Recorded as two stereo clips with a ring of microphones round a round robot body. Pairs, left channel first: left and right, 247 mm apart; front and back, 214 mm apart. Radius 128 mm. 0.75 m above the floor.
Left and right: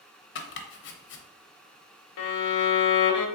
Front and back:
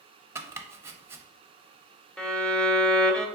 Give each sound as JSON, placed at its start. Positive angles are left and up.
{"t": 0.3, "sound": "chopping", "azimuth_deg": 105, "distance_m": 0.6}
{"t": 2.2, "sound": "a violin", "azimuth_deg": 85, "distance_m": 0.6}